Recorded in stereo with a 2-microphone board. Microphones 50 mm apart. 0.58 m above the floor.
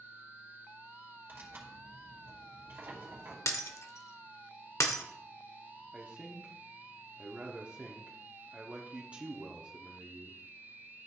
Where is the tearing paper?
45° right (ahead or behind), 2.5 m.